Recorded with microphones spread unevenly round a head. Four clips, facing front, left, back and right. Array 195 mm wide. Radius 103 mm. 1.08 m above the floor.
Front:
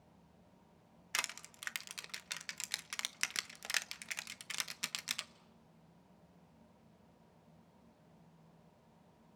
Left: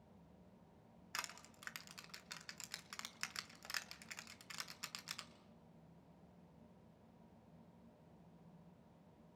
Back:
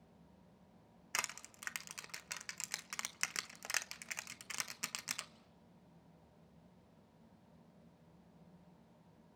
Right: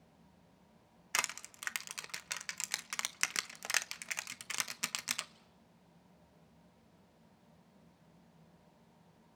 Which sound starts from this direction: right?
Crushing, at 1.1 s.